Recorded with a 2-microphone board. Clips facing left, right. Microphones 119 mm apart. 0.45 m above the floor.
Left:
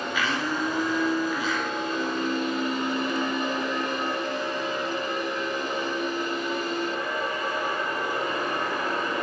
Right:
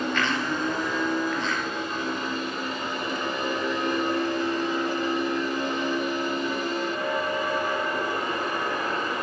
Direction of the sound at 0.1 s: 5° left (ahead or behind).